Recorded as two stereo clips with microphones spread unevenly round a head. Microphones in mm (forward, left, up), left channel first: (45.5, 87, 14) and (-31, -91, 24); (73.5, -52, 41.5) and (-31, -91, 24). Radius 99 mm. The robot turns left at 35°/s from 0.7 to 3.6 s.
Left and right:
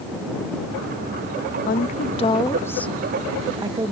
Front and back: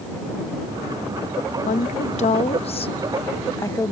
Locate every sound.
1.7 s a woman speaking: 25° left; by 3.9 s 40° right